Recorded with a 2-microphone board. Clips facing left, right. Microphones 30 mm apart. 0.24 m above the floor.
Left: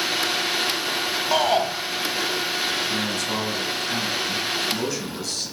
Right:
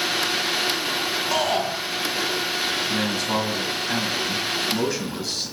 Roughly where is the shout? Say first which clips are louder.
Left 4 dB; left.